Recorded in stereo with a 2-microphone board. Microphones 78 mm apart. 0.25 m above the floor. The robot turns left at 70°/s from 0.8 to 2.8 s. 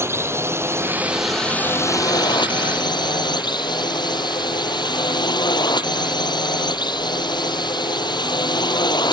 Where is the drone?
145° right; by 9.1 s 75° left.